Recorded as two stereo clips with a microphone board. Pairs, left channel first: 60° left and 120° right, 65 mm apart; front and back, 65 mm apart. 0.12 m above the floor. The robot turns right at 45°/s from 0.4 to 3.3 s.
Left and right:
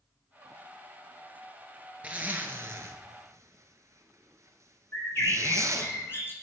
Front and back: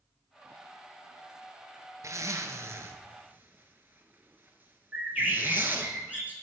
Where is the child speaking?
I don't hear a child speaking.